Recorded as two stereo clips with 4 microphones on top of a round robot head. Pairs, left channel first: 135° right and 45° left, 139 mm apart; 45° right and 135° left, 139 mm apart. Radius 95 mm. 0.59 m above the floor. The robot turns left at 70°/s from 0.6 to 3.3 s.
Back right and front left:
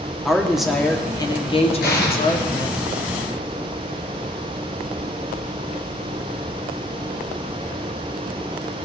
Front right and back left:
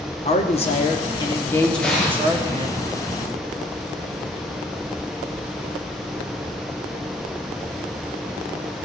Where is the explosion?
125° right, 3 m; by 2.7 s 170° left, 3 m.